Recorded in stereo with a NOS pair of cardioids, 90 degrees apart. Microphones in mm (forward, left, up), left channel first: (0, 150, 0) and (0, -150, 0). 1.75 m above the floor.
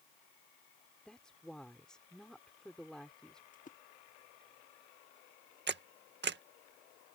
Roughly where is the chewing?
I don't hear chewing.